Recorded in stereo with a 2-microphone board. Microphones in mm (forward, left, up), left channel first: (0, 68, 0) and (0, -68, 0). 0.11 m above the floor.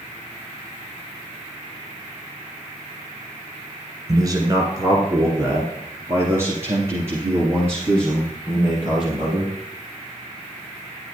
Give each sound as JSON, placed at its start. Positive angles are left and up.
{"t": 4.1, "sound": "a man speaking", "side_deg": -25, "distance_m": 1.8}